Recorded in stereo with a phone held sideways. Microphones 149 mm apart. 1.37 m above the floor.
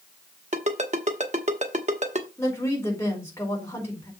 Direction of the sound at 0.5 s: 50° right (ahead or behind).